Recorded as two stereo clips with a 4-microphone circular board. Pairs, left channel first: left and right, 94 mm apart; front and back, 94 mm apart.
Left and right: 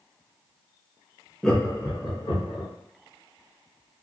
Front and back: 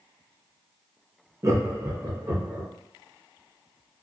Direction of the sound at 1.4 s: 175° left.